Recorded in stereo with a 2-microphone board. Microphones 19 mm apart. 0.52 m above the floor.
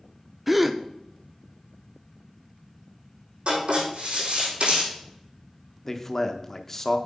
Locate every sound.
0.5 s a gasp: 5° right (ahead or behind), 0.5 m
3.5 s writing: 65° right (ahead or behind), 4.5 m
5.9 s a man speaking: 20° left (ahead or behind), 0.7 m